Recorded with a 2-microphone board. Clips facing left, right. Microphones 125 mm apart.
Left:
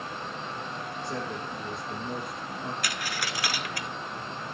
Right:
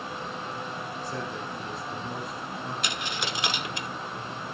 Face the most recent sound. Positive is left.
turn(degrees=-25)  # may be behind; listen again after turning